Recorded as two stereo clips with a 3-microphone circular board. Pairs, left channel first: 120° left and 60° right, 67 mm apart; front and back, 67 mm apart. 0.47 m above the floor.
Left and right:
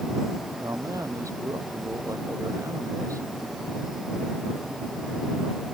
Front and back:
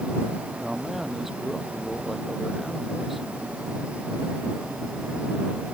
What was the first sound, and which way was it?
A man speaking, 95° right.